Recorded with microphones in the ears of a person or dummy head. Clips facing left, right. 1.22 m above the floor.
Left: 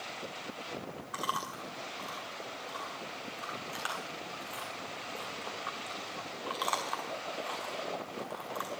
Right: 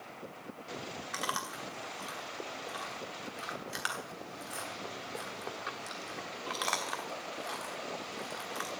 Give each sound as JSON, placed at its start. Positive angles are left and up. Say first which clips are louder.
{"t": 1.1, "sound": "chewing", "louder": "left 1 dB", "side_deg": -20, "distance_m": 1.4}